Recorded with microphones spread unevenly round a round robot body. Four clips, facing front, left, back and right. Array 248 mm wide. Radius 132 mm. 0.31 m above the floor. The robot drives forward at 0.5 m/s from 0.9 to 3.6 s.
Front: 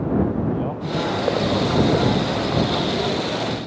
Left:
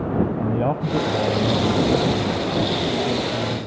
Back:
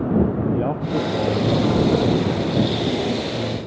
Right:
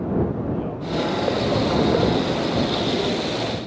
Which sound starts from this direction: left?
A man speaking, at 0.4 s.